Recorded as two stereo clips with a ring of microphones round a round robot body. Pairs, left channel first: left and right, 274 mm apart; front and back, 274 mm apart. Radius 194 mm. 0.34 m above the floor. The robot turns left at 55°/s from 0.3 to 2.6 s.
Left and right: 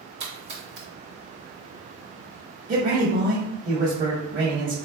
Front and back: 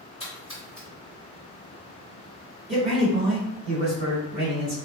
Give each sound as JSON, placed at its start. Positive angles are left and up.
{"t": 0.2, "sound": "a splash", "azimuth_deg": -60, "distance_m": 0.8}
{"t": 2.7, "sound": "a man speaking", "azimuth_deg": -125, "distance_m": 1.5}